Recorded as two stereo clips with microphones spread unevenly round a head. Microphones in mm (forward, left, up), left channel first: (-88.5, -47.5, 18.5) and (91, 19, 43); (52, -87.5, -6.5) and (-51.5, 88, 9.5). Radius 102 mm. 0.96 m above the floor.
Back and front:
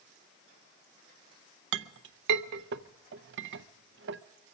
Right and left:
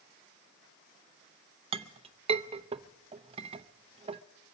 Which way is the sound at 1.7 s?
55° left.